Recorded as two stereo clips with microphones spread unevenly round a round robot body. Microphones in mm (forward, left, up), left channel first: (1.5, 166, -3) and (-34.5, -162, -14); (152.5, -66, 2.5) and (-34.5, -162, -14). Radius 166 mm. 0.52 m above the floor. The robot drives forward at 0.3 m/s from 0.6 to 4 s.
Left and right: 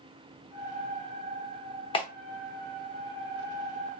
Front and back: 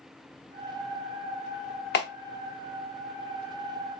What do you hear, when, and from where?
1.9 s a clap: 10° left, 0.8 m; by 2.1 s 15° left, 0.8 m